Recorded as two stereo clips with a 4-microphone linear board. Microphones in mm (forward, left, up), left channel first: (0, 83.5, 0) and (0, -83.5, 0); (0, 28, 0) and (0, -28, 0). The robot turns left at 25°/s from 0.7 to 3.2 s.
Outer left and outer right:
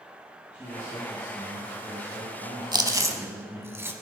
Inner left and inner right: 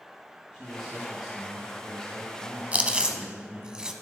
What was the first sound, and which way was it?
A man speaking, 10° right.